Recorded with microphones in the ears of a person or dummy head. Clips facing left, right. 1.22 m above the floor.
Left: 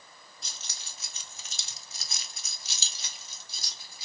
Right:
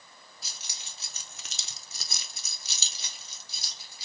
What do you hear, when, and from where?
0.4 s keys jangling: 5° right (ahead or behind), 0.8 m; by 4.0 s 60° right (ahead or behind), 1.7 m